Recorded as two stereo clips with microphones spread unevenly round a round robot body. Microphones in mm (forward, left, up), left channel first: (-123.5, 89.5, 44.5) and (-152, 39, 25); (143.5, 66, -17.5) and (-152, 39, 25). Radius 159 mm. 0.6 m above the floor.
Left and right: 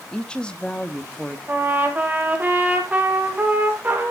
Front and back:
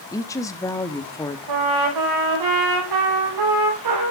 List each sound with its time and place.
0.1 s a woman speaking: 35° right, 0.9 m
1.5 s a trumpet: straight behind, 5.5 m